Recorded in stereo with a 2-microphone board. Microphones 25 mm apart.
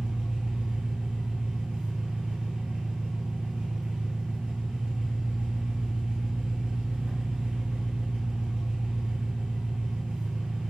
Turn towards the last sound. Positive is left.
turn(degrees=-60)  # may be behind; listen again after turning